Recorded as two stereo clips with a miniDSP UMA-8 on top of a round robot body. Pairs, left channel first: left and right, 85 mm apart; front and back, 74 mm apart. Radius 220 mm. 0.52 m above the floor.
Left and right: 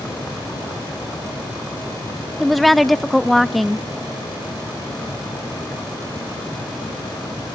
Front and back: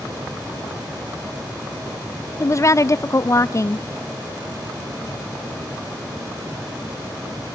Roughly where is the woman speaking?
Ahead.